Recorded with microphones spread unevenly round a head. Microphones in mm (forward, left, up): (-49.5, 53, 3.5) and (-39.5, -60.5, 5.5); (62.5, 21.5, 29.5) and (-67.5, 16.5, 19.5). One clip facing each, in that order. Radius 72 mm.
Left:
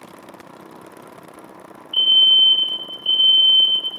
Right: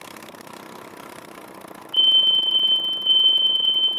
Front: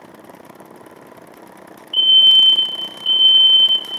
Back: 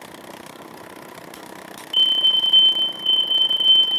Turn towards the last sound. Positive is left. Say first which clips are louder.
# left 4 dB, front 7 dB
turn(degrees=75)